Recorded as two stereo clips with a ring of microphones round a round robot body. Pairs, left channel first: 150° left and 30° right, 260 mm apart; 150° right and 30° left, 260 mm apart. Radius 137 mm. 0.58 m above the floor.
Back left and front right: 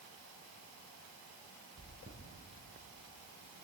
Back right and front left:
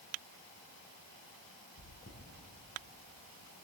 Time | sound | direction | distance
1.8 | chewing | 100° right | 3.5 m